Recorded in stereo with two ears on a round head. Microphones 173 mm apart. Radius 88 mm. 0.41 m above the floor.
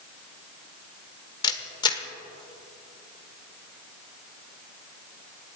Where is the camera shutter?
25° left (ahead or behind), 1.1 m.